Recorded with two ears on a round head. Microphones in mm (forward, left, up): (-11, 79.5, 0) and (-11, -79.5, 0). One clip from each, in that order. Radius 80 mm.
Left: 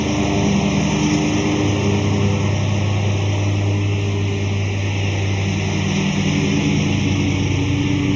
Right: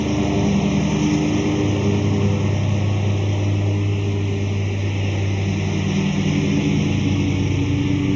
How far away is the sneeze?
I don't hear a sneeze.